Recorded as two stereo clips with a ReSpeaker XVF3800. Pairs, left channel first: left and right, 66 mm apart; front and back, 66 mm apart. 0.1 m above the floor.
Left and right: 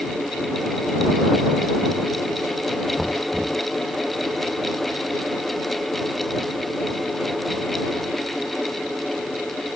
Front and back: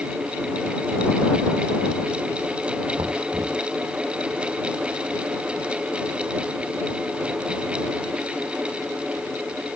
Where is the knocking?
Straight behind.